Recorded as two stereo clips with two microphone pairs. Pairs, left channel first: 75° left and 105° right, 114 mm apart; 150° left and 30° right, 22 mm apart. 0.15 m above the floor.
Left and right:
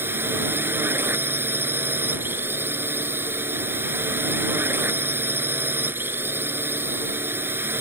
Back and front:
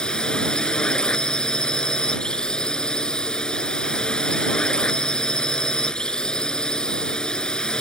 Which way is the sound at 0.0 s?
170° right.